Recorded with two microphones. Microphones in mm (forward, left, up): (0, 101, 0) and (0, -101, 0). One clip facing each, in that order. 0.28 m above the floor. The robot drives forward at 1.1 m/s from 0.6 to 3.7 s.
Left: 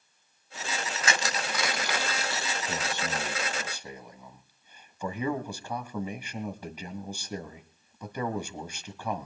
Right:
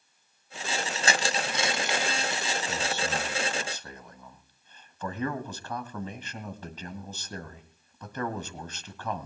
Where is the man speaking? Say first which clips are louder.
Right 1 dB; 15° left (ahead or behind), 1.1 m; by 9.3 s 10° left (ahead or behind), 1.7 m.